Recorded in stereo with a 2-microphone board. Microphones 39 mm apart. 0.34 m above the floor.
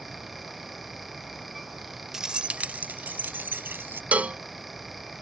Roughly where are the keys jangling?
Centre.